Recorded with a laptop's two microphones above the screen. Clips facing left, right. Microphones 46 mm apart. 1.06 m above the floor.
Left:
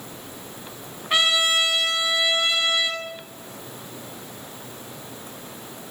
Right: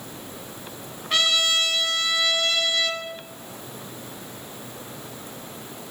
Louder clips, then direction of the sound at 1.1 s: Left 2 dB; 20° left (ahead or behind).